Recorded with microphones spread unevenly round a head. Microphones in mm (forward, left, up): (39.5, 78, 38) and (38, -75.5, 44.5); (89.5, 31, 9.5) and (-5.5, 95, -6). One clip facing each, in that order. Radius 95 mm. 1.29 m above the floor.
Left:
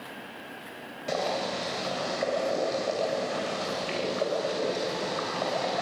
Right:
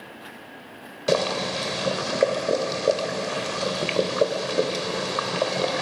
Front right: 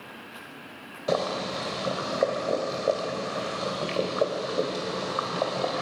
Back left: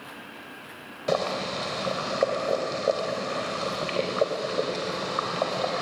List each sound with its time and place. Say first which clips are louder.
1.1 s boiling: right 6 dB, even; 120° right, 2.5 m